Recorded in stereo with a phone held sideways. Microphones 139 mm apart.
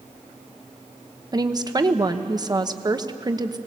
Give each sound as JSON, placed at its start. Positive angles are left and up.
{"t": 1.3, "sound": "a woman speaking", "side_deg": -30, "distance_m": 1.0}